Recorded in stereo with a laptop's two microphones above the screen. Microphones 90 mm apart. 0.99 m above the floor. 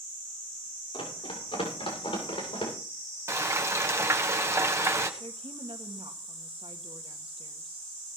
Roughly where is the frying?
Right.